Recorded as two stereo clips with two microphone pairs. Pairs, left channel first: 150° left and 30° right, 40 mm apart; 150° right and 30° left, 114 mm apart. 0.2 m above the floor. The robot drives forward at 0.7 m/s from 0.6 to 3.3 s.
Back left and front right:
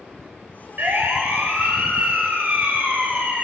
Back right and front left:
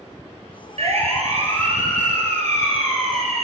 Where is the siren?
5° left, 4 m; by 3.4 s 10° left, 5 m.